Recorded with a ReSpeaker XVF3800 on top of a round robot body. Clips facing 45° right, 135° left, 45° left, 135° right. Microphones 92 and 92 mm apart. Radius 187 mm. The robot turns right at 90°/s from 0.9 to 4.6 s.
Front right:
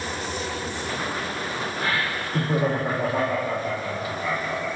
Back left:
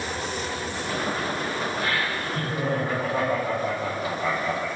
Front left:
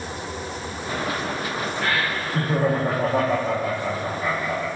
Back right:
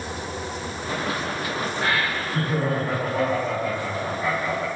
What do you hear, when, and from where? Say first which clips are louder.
1.8 s laughter: even, even; 80° right, 1.6 m; by 4.7 s 170° left, 1.6 m